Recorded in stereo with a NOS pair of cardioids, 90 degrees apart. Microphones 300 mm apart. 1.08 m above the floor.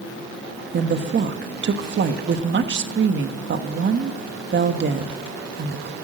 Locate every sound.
0.7 s a woman speaking: 40° right, 1.5 m